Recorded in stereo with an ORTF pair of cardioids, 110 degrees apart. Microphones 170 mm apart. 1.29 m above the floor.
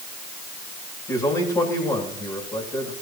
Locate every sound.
1.1 s a man speaking: 25° left, 8.5 m